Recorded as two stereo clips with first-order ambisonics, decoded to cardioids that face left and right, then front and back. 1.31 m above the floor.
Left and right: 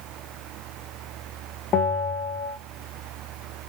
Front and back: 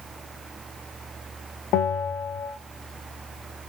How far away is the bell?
About 0.6 m.